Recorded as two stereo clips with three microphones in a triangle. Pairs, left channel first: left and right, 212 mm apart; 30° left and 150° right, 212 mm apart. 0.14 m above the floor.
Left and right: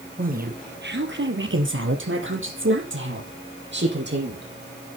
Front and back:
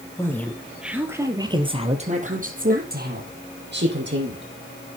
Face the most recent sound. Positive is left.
turn(degrees=-125)